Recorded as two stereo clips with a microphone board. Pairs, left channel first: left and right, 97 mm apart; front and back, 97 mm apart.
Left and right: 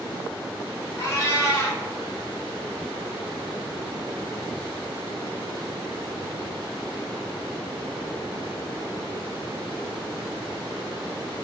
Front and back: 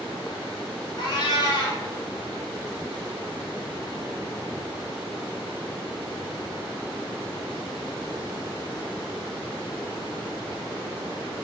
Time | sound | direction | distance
1.0 | a cat meowing | 35° left | 0.6 m